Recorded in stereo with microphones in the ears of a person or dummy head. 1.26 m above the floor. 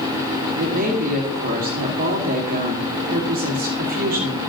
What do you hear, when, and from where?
0.6 s a woman speaking: 55° right (ahead or behind), 2 m